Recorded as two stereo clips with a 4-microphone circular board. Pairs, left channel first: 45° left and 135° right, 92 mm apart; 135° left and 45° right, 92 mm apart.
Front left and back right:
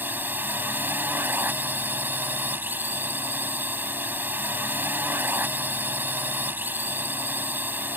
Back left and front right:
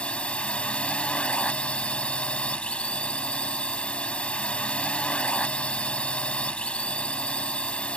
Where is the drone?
165° right.